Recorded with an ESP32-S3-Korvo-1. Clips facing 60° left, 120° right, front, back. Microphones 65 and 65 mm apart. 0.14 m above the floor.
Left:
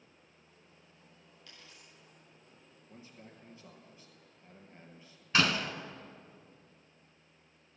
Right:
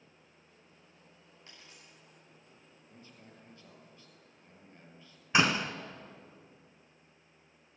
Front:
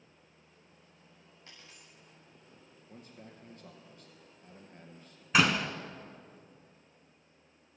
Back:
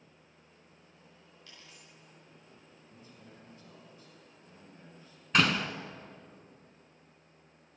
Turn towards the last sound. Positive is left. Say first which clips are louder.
# right 2 dB, front 1 dB
turn(degrees=-75)